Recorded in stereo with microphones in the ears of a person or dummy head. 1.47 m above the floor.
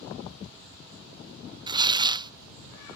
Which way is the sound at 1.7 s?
15° right (ahead or behind).